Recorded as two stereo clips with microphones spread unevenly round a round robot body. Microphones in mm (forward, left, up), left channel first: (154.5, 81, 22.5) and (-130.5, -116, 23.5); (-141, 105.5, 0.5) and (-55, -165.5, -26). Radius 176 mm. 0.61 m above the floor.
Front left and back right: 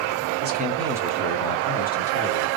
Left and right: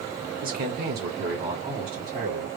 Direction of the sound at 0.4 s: 105° right.